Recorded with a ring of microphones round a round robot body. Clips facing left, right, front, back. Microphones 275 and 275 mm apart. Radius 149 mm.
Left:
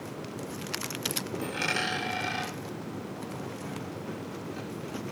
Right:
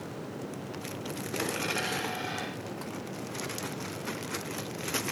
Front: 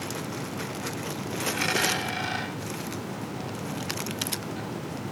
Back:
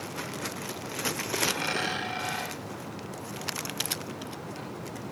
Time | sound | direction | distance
1.4 | a dropped coin | 35° left | 7.5 m